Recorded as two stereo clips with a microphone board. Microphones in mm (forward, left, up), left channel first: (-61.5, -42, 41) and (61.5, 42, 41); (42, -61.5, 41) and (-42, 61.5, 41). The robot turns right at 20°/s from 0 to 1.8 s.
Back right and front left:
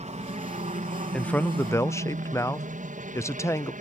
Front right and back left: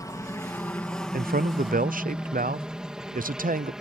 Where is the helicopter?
5° left; by 3.8 s 40° left.